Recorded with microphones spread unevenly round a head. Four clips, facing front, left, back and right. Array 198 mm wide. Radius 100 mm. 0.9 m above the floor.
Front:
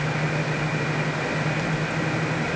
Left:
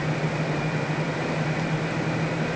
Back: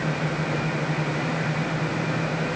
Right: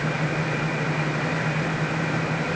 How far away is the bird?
I don't hear a bird.